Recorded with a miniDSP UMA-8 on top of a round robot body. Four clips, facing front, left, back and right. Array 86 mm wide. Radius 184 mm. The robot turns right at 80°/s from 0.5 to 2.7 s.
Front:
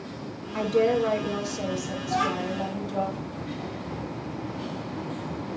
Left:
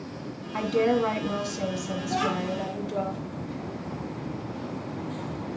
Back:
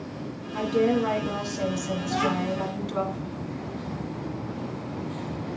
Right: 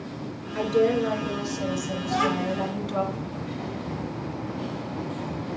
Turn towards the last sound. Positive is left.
turn(degrees=-55)